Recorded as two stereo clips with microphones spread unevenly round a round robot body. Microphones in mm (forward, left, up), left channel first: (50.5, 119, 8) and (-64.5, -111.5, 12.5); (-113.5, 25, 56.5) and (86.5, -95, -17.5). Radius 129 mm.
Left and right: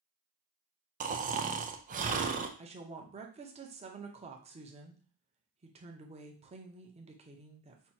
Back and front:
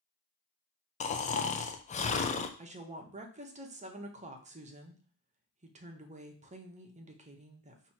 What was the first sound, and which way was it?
Snoring, 145° right.